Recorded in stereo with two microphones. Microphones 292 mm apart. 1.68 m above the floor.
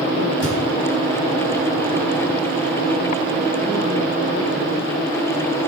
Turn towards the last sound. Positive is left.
turn(degrees=-60)  # may be behind; listen again after turning